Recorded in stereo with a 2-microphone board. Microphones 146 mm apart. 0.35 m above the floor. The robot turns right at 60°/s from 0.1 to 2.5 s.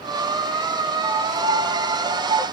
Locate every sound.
1.0 s a piano: 135° right, 0.7 m; by 2.5 s 50° right, 0.7 m